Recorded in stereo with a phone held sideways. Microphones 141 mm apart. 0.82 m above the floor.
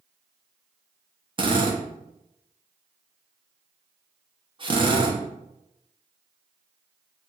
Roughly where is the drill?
Right.